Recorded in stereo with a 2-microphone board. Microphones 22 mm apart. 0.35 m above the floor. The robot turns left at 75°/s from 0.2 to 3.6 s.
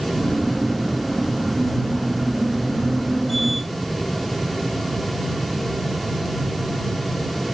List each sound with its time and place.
Only background noise.